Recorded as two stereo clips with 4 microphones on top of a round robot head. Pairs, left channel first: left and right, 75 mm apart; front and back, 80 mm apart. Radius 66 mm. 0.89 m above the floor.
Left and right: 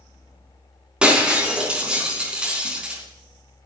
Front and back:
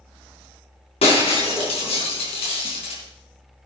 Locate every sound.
1.0 s breaking glass: 10° right, 4 m